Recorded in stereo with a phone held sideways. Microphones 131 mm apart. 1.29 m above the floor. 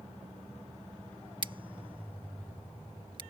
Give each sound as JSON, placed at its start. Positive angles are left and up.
{"t": 1.4, "sound": "scissors", "side_deg": -40}